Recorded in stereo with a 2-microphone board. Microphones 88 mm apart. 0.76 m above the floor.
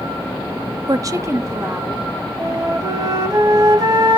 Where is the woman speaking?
40° right (ahead or behind), 0.6 m; by 2.1 s 25° right (ahead or behind), 2 m.